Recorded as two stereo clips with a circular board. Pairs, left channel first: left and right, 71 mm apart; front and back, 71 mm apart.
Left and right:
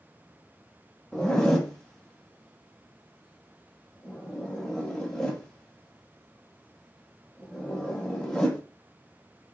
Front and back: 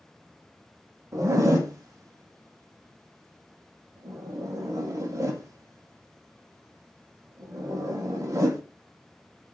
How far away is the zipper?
About 0.6 m.